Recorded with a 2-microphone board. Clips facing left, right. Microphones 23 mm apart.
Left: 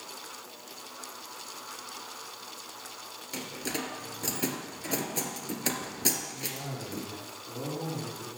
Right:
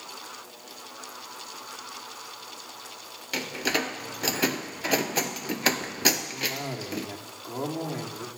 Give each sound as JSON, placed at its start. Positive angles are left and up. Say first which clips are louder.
{"t": 3.3, "sound": "a door slam", "louder": "right 8 dB", "side_deg": -40, "distance_m": 1.3}
{"t": 6.3, "sound": "a cough", "louder": "right 7 dB", "side_deg": -65, "distance_m": 7.5}